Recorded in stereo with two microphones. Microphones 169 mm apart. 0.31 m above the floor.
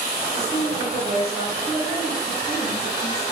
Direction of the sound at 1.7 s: 35° left (ahead or behind).